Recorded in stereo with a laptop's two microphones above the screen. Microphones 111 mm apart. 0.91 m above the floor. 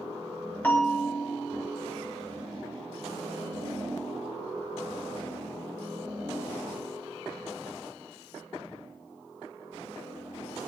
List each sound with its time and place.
0.6 s a bell: 15° left (ahead or behind), 3 m